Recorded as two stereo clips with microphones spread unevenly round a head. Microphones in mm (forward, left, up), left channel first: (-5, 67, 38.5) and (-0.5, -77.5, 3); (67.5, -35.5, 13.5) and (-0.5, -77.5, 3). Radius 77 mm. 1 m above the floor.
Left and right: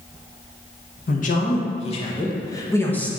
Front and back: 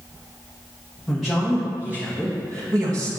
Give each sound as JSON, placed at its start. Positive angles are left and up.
{"t": 1.1, "sound": "a man speaking", "azimuth_deg": 120, "distance_m": 1.3}